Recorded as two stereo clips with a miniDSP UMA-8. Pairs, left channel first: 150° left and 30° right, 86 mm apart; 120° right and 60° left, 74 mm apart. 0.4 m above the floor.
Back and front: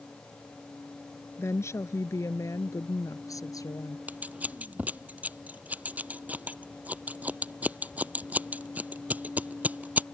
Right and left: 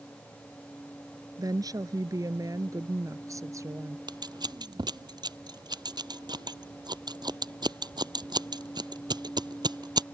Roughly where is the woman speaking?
Left.